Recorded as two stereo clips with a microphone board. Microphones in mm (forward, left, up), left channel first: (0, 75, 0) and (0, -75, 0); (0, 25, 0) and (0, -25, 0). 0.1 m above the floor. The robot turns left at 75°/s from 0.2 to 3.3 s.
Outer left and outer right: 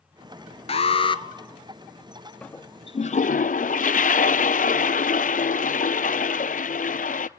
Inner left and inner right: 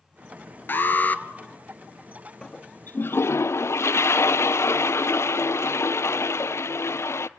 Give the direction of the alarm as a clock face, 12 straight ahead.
9 o'clock.